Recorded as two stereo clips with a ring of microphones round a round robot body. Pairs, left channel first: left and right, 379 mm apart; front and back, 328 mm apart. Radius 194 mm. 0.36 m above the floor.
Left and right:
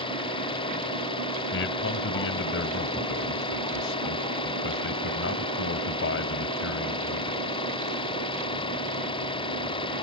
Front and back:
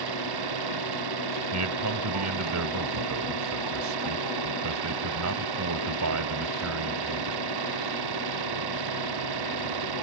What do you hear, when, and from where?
0.0 s an engine running: 170° left
1.5 s a man speaking: 145° left